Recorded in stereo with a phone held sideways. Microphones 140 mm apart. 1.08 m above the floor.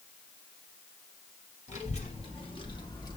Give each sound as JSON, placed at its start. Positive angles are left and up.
{"t": 1.7, "sound": "a child speaking", "side_deg": 55, "distance_m": 1.8}